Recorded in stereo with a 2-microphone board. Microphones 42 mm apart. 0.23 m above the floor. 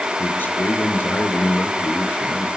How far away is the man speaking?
About 4.5 m.